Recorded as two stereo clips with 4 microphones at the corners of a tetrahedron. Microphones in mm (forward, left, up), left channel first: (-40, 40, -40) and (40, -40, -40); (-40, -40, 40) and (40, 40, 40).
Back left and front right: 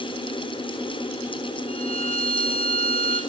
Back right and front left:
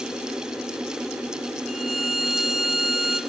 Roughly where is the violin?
Behind left.